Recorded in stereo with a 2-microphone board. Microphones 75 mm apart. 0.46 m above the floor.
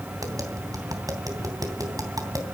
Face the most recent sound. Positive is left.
turn(degrees=-50)  # may be behind; listen again after turning